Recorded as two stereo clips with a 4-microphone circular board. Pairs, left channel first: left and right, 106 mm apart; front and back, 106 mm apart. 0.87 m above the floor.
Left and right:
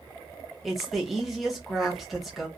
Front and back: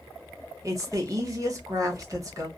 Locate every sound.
0.6 s a woman speaking: straight behind, 1.0 m